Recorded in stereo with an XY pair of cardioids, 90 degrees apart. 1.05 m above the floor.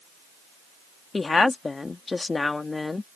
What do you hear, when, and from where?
1.1 s a woman speaking: 30° left